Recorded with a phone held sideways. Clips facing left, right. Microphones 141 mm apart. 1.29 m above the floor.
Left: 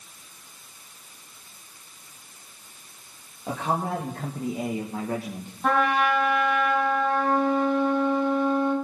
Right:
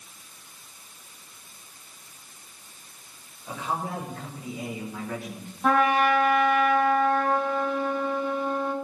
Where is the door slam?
I don't hear a door slam.